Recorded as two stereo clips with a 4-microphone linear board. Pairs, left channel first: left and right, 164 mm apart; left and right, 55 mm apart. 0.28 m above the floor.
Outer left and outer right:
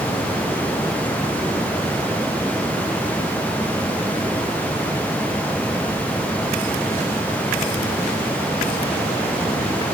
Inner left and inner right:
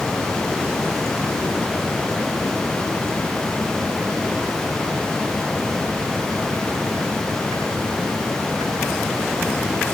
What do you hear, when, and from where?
Only background noise.